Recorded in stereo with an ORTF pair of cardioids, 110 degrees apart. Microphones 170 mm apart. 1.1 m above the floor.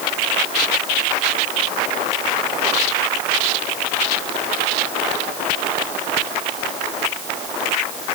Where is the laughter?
No laughter in this recording.